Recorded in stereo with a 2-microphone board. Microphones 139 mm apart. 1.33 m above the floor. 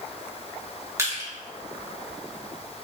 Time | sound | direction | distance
1.0 | crushing | 20° right (ahead or behind) | 1.0 m